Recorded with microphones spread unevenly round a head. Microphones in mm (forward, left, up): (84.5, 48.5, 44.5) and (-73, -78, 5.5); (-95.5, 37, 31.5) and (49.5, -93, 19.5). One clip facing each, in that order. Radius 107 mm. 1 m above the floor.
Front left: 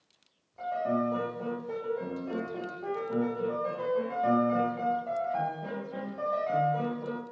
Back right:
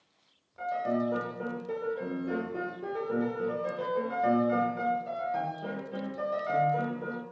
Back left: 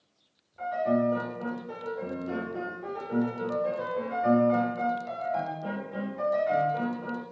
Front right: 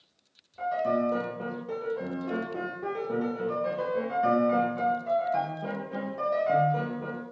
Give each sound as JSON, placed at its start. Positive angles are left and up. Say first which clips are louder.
{"t": 0.6, "sound": "a piano", "louder": "even, back left 1 dB", "azimuth_deg": -70, "distance_m": 1.0}